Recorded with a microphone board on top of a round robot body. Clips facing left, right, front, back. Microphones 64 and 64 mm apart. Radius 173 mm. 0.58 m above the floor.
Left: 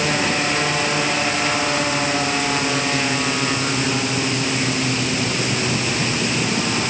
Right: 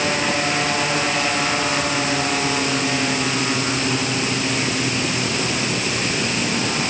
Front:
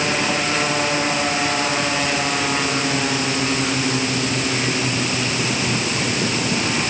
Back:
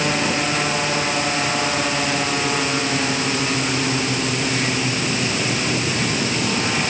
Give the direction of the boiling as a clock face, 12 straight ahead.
No boiling in this recording.